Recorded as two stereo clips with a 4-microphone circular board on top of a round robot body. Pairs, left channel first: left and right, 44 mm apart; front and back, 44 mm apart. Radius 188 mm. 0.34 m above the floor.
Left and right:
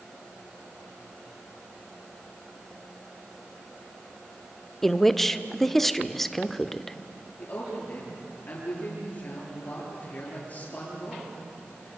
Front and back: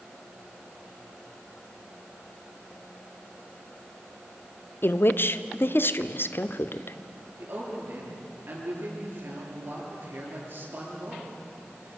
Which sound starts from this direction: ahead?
A woman speaking, at 4.8 s.